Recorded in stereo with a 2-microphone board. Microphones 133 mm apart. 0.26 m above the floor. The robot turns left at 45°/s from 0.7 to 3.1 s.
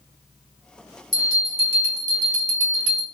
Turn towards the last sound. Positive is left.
turn(degrees=60)